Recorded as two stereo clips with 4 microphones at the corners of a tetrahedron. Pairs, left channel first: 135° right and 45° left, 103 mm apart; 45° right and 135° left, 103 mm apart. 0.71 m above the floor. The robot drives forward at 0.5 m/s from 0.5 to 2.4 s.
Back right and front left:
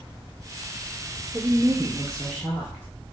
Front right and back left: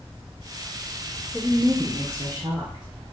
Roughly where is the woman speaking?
Left.